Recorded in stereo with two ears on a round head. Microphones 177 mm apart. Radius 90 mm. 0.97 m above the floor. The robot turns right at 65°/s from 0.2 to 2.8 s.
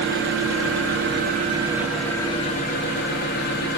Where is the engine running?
115° right, 0.7 m; by 3.8 s 55° left, 0.7 m.